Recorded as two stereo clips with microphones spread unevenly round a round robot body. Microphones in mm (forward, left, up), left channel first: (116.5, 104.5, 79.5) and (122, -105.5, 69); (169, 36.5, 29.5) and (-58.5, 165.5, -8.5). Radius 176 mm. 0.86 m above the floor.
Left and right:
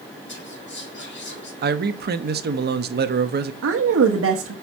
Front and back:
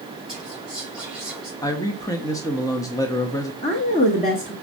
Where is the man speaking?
115° right, 0.7 m.